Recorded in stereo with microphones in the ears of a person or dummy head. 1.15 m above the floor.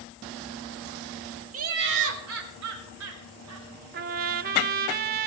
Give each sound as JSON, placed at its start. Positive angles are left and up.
{"t": 1.5, "sound": "laughter", "side_deg": -40, "distance_m": 1.1}
{"t": 3.9, "sound": "a trumpet", "side_deg": -40, "distance_m": 0.7}